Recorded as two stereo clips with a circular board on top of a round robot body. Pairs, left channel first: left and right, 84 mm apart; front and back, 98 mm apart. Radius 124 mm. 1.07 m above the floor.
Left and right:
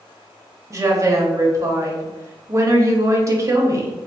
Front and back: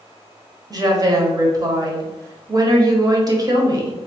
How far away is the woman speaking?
About 1.1 m.